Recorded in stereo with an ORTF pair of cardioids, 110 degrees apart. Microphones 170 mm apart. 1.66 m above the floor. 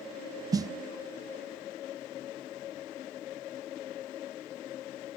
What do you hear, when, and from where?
0.5 s a snare drum: 20° right, 0.7 m